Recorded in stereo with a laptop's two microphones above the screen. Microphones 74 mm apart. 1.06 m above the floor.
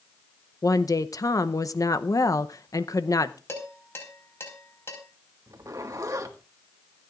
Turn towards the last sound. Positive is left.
turn(degrees=-55)  # may be behind; listen again after turning